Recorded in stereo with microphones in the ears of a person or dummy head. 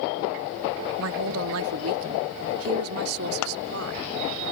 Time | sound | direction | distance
1.0 | a woman speaking | 75° right (ahead or behind) | ?
3.4 | scissors | 80° left | ?